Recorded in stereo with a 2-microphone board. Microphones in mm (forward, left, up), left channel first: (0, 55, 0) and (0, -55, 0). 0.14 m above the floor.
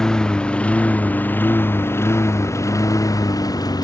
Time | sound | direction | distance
0.0 | a lawn mower | 5° left (ahead or behind) | ?